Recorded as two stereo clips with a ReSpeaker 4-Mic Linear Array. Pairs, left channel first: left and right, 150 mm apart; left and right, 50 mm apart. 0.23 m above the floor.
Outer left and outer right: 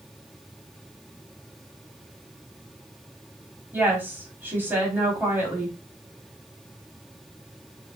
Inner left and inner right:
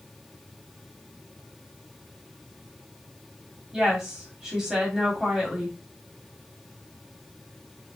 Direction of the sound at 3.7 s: 15° right (ahead or behind).